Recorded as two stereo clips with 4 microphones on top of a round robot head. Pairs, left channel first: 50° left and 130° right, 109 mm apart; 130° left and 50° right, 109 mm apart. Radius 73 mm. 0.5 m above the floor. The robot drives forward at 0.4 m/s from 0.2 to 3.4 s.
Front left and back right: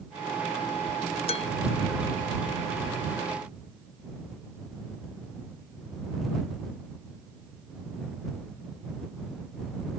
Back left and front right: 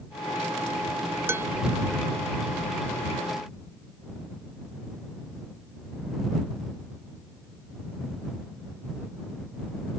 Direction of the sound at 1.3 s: 20° left.